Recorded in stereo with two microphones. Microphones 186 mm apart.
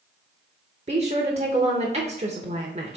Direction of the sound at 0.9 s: 35° right (ahead or behind).